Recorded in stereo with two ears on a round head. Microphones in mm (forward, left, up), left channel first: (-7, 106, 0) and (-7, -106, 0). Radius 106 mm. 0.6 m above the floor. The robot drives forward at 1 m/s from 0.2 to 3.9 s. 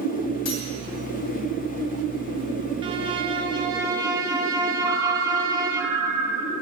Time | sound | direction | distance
0.5 | cutlery clinking | 70° left (ahead or behind) | 2.5 m
2.8 | a violin | 20° right (ahead or behind) | 0.7 m
4.8 | a ringtone | 60° right (ahead or behind) | 3 m